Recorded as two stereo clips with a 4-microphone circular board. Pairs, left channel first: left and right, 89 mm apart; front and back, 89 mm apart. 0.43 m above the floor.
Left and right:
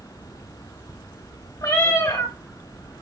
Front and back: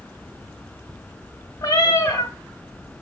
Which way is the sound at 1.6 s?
45° left.